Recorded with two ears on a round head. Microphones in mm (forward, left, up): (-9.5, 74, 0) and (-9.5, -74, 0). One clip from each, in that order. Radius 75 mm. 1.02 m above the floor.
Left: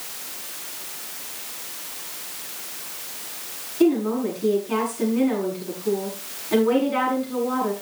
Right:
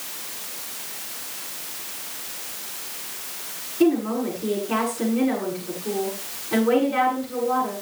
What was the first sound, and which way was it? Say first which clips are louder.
A woman speaking: left 1 dB; 35° left (ahead or behind).